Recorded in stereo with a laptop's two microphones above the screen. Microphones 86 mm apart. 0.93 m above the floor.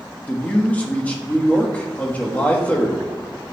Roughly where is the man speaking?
Centre.